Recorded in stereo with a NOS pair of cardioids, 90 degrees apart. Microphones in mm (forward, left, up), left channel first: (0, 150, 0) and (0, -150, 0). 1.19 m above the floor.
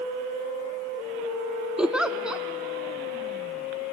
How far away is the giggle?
About 0.5 m.